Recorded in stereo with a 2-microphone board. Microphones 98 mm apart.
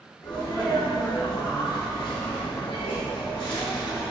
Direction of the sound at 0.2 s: 60° left (ahead or behind).